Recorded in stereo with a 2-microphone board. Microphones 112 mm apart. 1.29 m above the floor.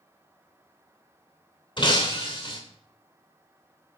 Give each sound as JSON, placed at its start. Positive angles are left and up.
{"t": 1.8, "sound": "breaking glass", "side_deg": 45, "distance_m": 2.5}